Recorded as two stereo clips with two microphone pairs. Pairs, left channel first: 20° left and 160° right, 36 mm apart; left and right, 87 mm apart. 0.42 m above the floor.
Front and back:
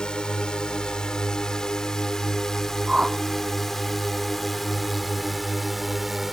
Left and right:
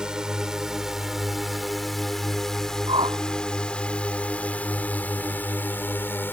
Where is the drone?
15° right; by 6.3 s 120° left.